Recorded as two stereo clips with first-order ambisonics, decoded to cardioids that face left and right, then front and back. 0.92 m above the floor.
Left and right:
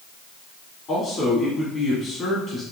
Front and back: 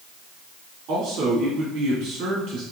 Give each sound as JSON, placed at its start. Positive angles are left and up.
{"t": 0.9, "sound": "a man speaking", "azimuth_deg": 145, "distance_m": 2.0}